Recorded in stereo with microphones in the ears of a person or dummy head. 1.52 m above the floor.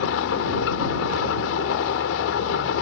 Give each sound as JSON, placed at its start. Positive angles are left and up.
{"t": 0.0, "sound": "an engine running", "side_deg": 75}